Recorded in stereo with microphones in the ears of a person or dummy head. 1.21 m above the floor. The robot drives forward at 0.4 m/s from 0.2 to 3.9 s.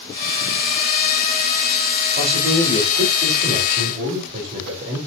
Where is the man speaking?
45° right (ahead or behind), 5.5 m; by 5.0 s 50° right (ahead or behind), 5 m.